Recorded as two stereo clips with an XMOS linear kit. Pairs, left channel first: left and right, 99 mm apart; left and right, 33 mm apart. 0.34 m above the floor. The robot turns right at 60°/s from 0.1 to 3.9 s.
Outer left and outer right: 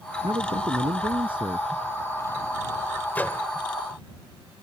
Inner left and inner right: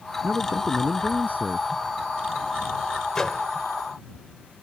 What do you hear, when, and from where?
0.2 s a man speaking: 120° right; by 1.7 s 35° right
3.1 s a microwave: 15° left (ahead or behind); by 3.5 s 20° left (ahead or behind)